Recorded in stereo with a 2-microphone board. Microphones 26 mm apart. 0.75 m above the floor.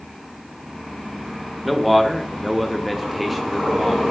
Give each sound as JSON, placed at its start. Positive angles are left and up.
{"t": 1.6, "sound": "a man speaking", "side_deg": -5, "distance_m": 0.5}